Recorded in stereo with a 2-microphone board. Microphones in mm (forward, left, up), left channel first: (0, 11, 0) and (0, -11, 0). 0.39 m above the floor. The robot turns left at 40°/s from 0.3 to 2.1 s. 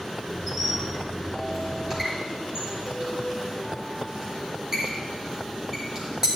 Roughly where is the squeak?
Left.